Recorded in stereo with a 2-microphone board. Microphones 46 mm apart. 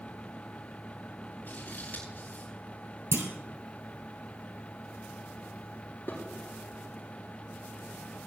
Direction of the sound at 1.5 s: 40° left (ahead or behind).